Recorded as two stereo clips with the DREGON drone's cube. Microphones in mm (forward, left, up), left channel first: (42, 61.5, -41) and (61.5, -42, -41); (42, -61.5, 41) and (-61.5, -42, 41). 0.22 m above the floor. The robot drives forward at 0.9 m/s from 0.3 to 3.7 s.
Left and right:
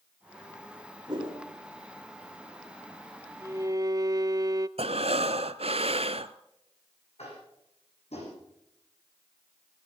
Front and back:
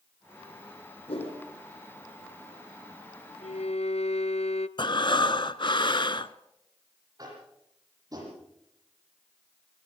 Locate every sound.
1.1 s a whoosh: 30° right, 7 m
3.4 s a violin: 15° right, 0.9 m; by 4.7 s 20° right, 0.7 m
4.8 s breathing: 55° right, 0.8 m
7.2 s tapping: 115° left, 9.5 m